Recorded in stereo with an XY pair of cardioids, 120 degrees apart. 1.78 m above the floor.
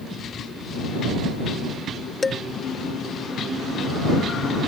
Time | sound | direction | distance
2.2 | dishes clattering | 25° left | ?